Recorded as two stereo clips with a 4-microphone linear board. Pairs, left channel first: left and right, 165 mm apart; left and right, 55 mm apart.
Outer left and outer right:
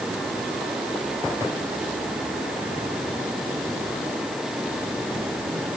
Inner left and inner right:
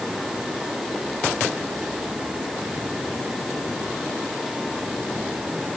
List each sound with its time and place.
Only background noise.